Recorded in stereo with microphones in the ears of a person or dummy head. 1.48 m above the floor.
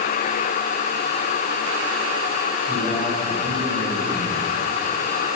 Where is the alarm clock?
No alarm clock in this recording.